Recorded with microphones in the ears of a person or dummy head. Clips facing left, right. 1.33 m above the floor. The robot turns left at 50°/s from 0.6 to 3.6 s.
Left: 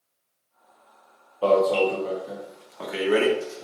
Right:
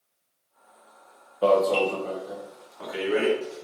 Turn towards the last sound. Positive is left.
turn(degrees=80)